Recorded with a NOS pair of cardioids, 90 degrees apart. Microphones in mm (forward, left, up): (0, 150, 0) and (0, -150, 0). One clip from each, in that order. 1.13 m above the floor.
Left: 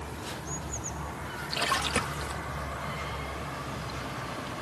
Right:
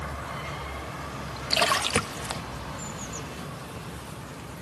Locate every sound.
1.5 s a splash: 50° right